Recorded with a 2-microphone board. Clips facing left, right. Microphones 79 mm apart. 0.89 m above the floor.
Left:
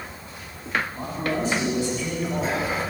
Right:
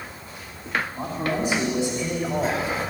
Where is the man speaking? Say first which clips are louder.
Right 1 dB; 5° right (ahead or behind), 5.5 m; by 2.7 s 20° right (ahead or behind), 4.5 m.